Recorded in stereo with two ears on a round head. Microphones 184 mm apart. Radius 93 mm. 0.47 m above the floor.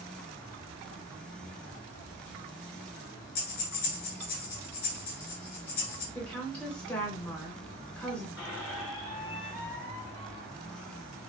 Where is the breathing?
45° left (ahead or behind), 2.5 m.